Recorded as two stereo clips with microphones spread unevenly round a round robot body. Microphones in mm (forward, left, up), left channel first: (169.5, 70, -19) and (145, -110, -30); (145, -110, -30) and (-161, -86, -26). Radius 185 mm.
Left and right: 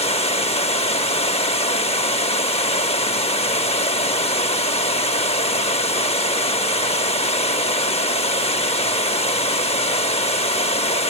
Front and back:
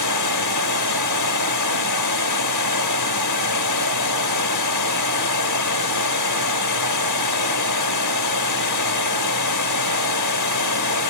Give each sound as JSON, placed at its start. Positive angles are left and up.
{"t": 0.0, "sound": "running water", "azimuth_deg": 25, "distance_m": 1.2}